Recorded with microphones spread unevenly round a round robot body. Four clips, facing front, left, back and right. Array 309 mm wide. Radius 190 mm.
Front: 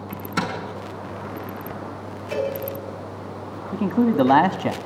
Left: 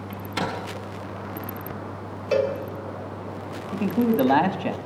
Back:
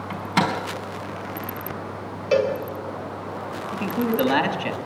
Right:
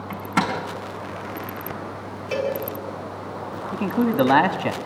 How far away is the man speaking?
About 1.4 m.